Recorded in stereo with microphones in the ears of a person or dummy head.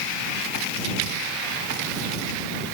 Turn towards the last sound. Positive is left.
No sound to turn to.